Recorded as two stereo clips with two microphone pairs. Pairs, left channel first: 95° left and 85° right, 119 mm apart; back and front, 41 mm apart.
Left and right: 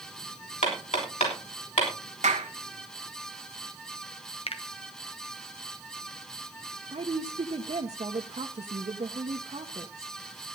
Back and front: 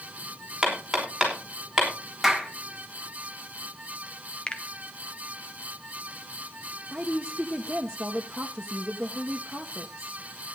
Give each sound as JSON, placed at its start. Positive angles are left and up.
{"t": 0.6, "sound": "hammering", "azimuth_deg": 85, "distance_m": 5.5}
{"t": 2.2, "sound": "a clap", "azimuth_deg": -85, "distance_m": 1.7}
{"t": 4.5, "sound": "a finger snap", "azimuth_deg": 120, "distance_m": 1.2}
{"t": 6.9, "sound": "a woman speaking", "azimuth_deg": -70, "distance_m": 1.2}